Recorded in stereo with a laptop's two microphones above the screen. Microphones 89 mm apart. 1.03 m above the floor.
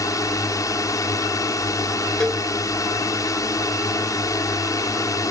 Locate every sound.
0.0 s a drone: 40° left (ahead or behind)
2.2 s a cowbell: 5° left (ahead or behind)